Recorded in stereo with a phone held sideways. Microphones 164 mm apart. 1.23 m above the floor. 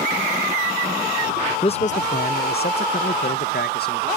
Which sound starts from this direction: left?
A man speaking, at 1.6 s.